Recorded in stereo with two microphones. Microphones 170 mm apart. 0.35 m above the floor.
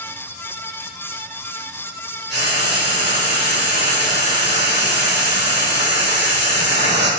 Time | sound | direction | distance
2.3 | frying | 80° right | 5 m